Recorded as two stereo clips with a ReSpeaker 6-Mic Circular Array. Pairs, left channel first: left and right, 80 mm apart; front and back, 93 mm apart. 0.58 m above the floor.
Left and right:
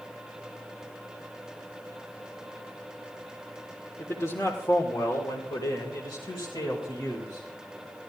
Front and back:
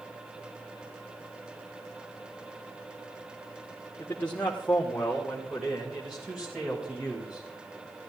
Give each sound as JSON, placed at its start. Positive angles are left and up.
{"t": 4.0, "sound": "a man speaking", "azimuth_deg": 60, "distance_m": 1.8}